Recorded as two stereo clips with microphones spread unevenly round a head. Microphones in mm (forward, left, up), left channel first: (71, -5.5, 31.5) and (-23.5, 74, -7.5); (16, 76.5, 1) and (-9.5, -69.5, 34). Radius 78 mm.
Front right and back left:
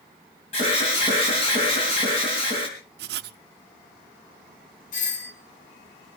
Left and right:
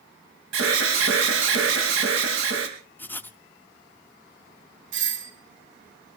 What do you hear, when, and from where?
0.5 s an alarm: 100° right, 4 m
3.0 s writing: 165° left, 0.5 m
4.9 s a doorbell: 85° right, 2.5 m